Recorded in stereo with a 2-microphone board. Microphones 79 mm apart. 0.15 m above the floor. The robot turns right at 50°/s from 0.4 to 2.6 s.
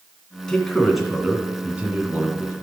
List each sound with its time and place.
0.5 s a man speaking: 10° left (ahead or behind), 1.7 m; by 2.5 s 25° right (ahead or behind), 1.7 m